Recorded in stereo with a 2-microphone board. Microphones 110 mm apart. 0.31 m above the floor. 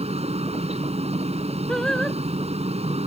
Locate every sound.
0.0 s a helicopter: 65° right (ahead or behind)
1.7 s singing: 5° left (ahead or behind)